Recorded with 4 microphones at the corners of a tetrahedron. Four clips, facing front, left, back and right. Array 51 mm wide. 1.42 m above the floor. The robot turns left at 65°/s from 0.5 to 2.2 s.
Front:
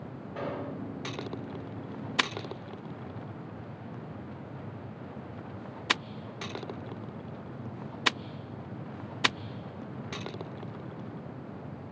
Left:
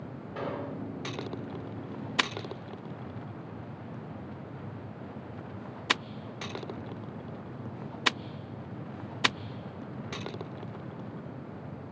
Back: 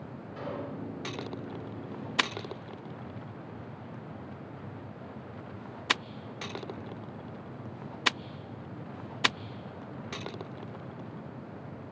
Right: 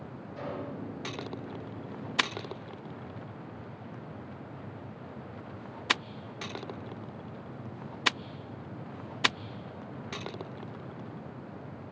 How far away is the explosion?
About 2.5 m.